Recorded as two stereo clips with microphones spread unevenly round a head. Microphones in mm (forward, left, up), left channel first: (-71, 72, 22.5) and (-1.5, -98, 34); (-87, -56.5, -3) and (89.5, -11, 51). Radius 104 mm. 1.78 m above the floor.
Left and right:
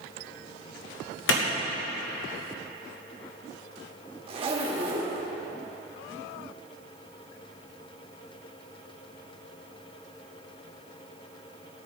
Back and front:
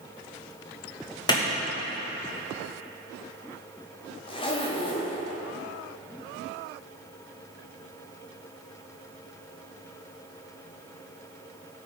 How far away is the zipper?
About 1.5 m.